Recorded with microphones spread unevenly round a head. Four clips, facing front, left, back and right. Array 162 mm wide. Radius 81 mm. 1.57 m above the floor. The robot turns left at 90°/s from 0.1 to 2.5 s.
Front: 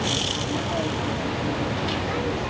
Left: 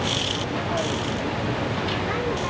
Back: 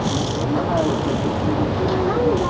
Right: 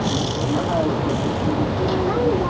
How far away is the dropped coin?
No dropped coin in this recording.